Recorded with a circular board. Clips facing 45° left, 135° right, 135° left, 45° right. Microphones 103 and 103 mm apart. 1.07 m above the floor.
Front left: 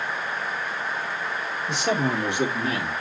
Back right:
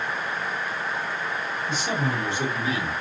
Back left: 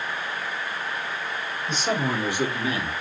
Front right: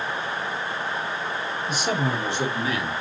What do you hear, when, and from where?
1.7 s a man speaking: 35° left, 2 m; by 2.9 s 80° left, 1.8 m